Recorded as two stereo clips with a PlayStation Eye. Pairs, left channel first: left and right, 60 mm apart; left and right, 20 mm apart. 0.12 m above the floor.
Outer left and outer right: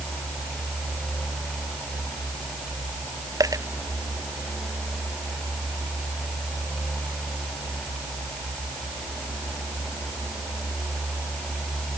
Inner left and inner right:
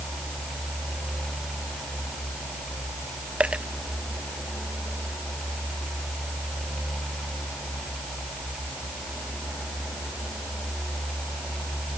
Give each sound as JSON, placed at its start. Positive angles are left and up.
{"t": 3.4, "sound": "a dropped coin", "side_deg": -70}